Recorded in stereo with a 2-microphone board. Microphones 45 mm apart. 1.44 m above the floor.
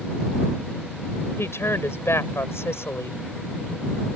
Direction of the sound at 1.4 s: 80° left.